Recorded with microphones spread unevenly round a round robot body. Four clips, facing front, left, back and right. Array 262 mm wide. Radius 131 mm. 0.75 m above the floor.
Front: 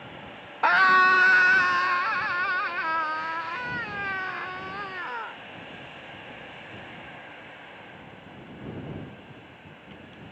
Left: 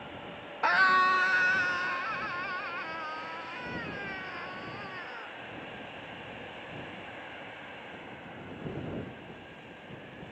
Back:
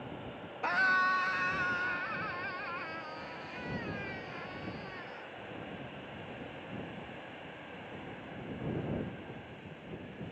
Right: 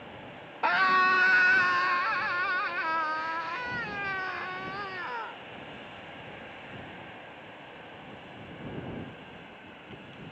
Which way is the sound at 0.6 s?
25° right.